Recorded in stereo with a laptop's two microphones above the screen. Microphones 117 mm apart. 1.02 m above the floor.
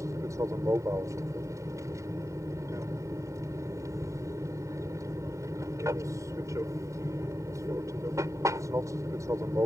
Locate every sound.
0.0 s an aircraft: 25° right (ahead or behind)